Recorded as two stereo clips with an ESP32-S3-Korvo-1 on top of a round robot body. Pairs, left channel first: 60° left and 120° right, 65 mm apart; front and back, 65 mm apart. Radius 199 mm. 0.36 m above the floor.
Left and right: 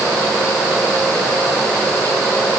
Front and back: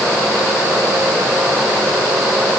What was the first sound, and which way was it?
Only background noise.